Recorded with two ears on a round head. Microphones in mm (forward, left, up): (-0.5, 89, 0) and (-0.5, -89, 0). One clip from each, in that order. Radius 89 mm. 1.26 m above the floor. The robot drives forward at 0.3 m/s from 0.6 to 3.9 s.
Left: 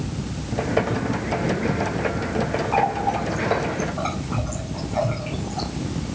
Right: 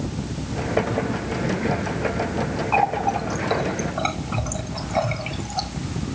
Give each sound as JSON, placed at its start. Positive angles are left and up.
{"t": 2.7, "sound": "a running tap", "side_deg": -80, "distance_m": 2.0}